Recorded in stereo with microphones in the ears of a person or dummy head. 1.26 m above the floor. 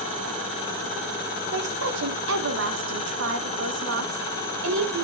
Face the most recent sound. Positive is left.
turn(degrees=-75)  # may be behind; listen again after turning